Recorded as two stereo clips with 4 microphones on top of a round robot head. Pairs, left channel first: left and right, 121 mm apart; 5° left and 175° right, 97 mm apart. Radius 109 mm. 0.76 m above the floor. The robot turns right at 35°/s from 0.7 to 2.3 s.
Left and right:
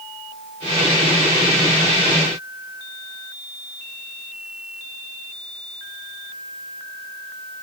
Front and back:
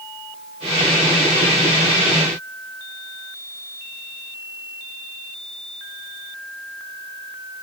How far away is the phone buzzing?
No phone buzzing in this recording.